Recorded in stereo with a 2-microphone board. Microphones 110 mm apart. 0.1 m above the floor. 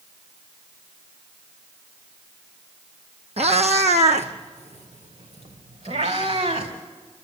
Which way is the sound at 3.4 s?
70° right (ahead or behind).